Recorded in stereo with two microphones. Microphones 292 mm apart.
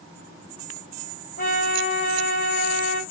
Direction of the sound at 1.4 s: 35° left (ahead or behind).